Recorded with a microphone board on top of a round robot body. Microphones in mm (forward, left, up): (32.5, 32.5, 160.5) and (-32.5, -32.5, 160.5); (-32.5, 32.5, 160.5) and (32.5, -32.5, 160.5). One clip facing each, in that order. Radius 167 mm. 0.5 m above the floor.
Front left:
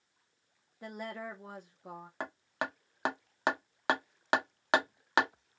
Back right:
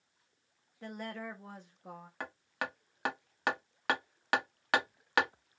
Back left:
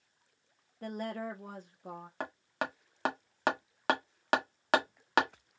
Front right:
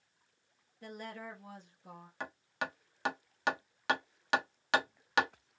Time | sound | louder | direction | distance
0.8 | a woman speaking | front left 1 dB, back left 7 dB | 120° left | 1.0 m
2.2 | hammering | front left 2 dB, back left 2 dB | 105° left | 1.5 m